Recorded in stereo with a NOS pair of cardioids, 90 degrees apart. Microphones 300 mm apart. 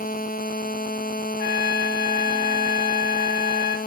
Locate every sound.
1.4 s a trumpet: 60° left, 3 m